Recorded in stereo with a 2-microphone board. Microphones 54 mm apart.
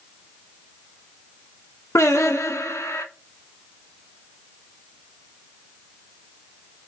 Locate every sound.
1.9 s singing: 75° left (ahead or behind), 0.7 m